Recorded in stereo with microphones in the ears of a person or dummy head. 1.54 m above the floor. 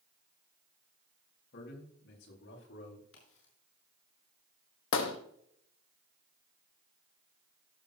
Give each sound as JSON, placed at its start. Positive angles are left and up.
{"t": 1.5, "sound": "a man speaking", "side_deg": 65, "distance_m": 3.5}
{"t": 3.1, "sound": "a crack", "side_deg": 75, "distance_m": 4.5}
{"t": 4.9, "sound": "a gunshot", "side_deg": 75, "distance_m": 1.2}